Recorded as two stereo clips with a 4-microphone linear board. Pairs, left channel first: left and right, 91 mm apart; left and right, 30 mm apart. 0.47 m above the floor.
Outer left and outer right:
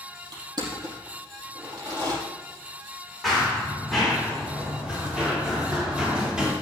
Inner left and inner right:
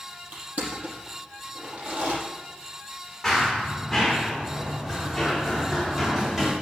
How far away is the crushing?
About 4.5 m.